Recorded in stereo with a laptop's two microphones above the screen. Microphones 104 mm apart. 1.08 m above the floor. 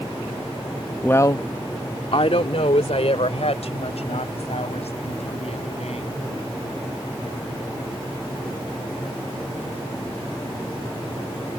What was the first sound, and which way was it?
A woman speaking, 15° left (ahead or behind).